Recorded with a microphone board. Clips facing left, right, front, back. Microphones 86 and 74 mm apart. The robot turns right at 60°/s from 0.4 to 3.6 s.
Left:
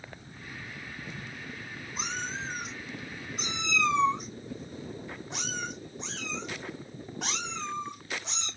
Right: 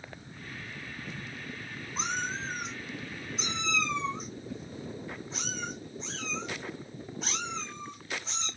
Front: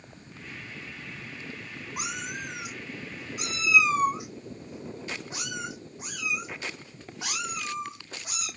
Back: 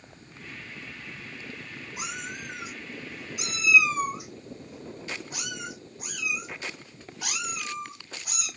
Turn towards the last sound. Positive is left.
turn(degrees=65)